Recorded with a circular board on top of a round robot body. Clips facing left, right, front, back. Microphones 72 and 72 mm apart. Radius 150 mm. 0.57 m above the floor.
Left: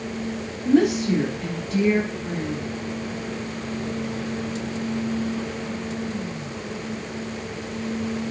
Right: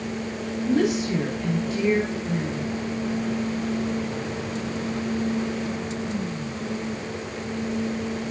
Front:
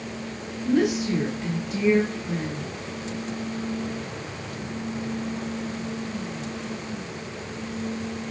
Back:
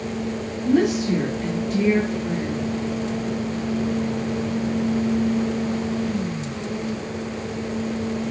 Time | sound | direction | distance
0.7 | a woman speaking | 135° left | 4 m